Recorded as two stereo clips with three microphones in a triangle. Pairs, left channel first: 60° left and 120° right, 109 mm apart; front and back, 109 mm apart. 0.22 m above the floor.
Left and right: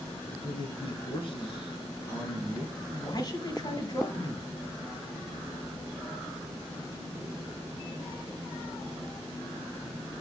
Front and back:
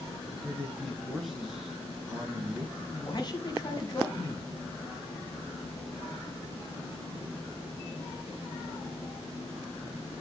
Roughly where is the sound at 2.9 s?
Ahead left.